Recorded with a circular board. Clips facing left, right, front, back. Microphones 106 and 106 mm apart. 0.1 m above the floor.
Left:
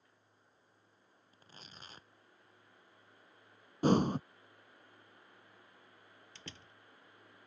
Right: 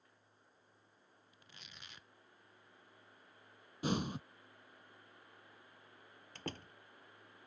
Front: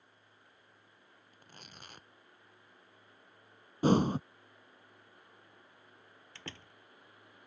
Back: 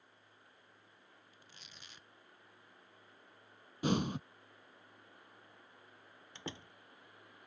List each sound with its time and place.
1.3 s tearing paper: 35° left
3.8 s breathing: 50° left
6.3 s a door slam: 110° right